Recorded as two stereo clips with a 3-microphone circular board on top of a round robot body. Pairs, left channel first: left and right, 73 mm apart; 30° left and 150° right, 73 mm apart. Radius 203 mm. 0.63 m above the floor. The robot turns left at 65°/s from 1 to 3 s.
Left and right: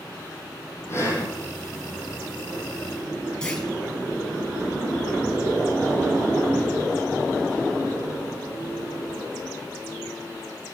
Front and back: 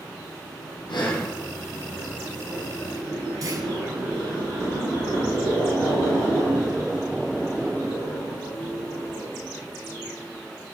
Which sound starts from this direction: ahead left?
Breathing, at 0.9 s.